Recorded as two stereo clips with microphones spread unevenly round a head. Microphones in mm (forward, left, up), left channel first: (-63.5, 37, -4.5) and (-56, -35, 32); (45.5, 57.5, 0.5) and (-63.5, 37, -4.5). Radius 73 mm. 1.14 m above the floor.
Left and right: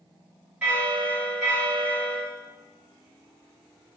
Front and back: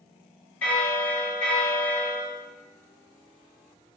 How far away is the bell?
About 1.1 m.